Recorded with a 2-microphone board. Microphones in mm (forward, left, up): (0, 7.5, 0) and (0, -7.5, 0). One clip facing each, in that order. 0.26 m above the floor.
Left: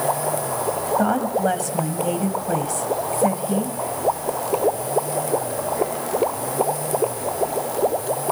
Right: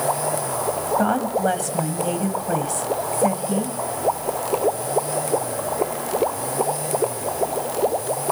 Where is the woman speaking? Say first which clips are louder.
Even; 10° right (ahead or behind), 1.9 m.